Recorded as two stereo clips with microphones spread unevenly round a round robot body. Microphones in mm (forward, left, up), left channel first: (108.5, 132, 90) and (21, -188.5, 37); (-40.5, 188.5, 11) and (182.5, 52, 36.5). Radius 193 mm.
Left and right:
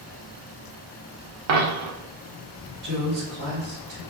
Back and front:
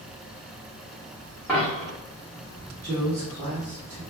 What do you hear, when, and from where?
1.5 s a dropped coin: 120° right, 0.6 m
2.8 s a woman speaking: 80° right, 1.4 m